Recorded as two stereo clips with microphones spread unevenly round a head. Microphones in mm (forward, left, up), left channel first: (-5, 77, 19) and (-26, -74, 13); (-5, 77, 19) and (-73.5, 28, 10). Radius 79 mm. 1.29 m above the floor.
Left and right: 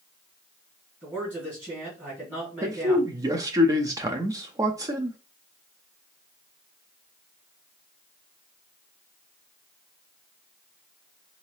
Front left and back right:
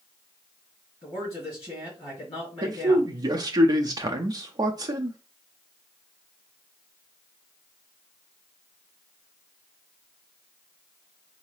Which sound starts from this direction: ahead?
A man speaking, at 1.0 s.